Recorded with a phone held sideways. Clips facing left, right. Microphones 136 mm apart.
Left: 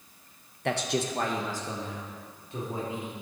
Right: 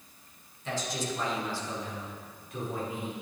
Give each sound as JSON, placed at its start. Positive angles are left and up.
{"t": 0.7, "sound": "a man speaking", "side_deg": 70, "distance_m": 0.9}